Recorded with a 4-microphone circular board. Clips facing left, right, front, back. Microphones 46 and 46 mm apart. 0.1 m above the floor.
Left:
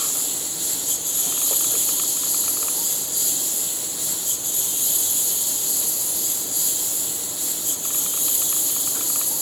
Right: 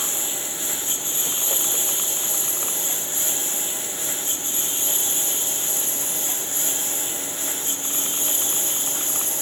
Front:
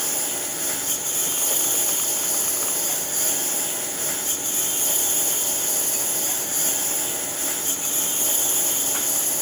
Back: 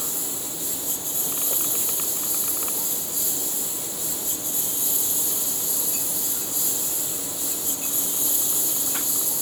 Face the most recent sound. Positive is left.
turn(degrees=-35)